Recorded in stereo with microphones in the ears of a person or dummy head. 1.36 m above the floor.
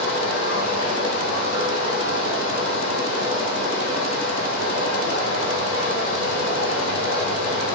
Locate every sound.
0.0 s running water: 70° left (ahead or behind), 2 m